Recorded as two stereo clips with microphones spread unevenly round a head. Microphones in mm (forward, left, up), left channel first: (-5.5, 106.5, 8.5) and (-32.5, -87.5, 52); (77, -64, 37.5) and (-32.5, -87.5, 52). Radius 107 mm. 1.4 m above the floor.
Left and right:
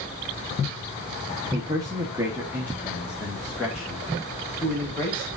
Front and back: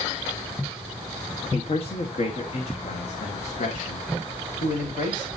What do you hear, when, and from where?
1.5 s a man speaking: 25° right, 1.3 m; by 5.3 s 5° right, 3 m